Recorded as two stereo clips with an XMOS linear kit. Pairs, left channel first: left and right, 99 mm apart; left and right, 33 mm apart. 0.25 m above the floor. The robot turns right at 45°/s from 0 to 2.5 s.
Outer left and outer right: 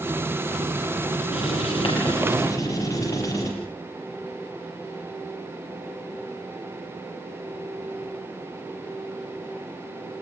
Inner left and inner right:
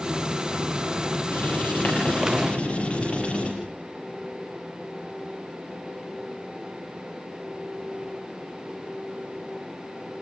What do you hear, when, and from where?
1.3 s writing: 90° left, 8 m; by 3.5 s 145° left, 8 m